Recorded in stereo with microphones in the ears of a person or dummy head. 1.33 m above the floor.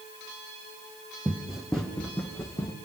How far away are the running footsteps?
About 2 m.